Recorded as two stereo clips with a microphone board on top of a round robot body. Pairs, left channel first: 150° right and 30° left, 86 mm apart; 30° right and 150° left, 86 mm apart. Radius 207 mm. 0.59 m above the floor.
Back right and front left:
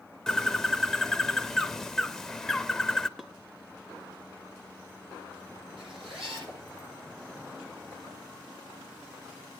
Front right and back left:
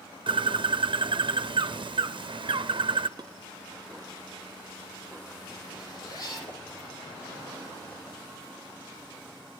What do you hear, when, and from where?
0.3 s a bird: 125° left, 0.8 m
3.2 s dishes clattering: 115° left, 1.0 m
5.8 s a zipper: 15° left, 9 m